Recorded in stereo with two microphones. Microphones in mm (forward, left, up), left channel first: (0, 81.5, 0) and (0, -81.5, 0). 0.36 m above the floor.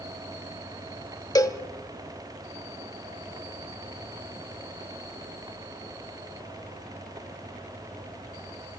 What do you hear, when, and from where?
1.4 s a cowbell: 25° left (ahead or behind), 1.0 m